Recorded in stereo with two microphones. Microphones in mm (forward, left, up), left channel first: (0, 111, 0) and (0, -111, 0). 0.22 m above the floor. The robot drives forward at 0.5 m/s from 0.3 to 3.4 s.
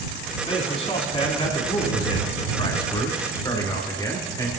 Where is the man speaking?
30° left (ahead or behind), 2.0 m; by 4.5 s 20° left (ahead or behind), 3 m.